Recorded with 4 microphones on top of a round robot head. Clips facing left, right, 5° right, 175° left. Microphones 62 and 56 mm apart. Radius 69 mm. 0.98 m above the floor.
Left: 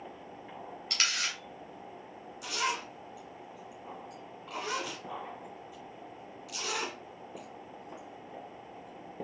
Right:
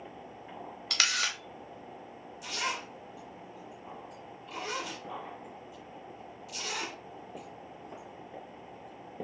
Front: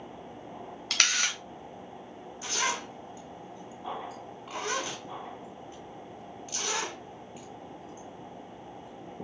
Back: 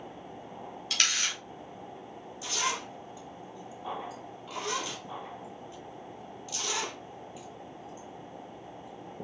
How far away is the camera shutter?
About 0.8 m.